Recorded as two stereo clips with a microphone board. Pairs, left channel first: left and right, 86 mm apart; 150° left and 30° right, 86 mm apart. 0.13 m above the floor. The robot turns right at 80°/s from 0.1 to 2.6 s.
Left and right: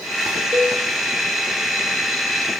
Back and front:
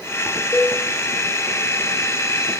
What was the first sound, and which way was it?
A cowbell, 150° right.